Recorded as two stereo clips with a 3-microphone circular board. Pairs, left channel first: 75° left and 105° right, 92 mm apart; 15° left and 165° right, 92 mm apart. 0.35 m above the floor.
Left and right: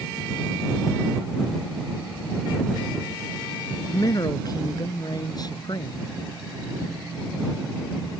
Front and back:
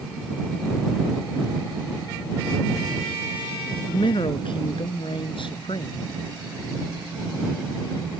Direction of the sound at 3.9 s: 30° left.